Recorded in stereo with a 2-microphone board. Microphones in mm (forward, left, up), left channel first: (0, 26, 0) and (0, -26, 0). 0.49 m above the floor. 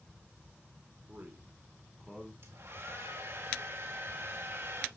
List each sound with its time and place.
1.1 s a man speaking: 30° right (ahead or behind), 1.5 m; by 2.3 s 10° left (ahead or behind), 1.1 m
2.4 s a hair dryer: 50° right (ahead or behind), 3 m